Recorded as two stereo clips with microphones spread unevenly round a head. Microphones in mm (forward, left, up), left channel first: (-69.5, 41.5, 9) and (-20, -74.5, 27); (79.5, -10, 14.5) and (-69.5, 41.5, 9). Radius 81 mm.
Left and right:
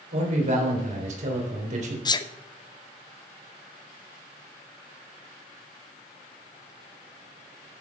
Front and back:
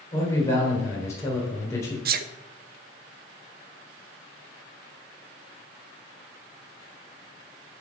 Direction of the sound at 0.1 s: 95° right.